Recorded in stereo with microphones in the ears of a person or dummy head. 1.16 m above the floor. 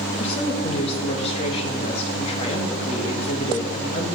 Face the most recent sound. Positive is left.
turn(degrees=35)  # may be behind; listen again after turning